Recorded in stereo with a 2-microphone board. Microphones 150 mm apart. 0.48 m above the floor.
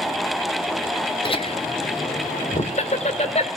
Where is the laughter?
35° left (ahead or behind), 1.3 m; by 3.5 s 45° left (ahead or behind), 2.5 m.